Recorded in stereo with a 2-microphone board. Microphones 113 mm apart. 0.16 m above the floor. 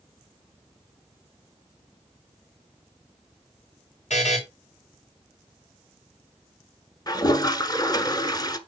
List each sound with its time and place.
4.1 s a buzzer: 75° left (ahead or behind), 5 m
7.1 s a toilet flushing: 35° left (ahead or behind), 1.0 m